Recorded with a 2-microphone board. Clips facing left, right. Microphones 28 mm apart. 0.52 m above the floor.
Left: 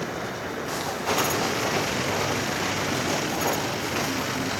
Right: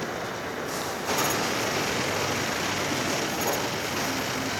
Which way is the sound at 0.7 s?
60° left (ahead or behind).